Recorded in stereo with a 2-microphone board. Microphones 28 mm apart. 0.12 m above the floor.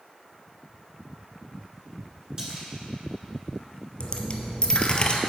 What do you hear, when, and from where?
2.4 s a splash: 25° right (ahead or behind), 1.6 m
4.0 s a dropped coin: 35° left (ahead or behind), 0.7 m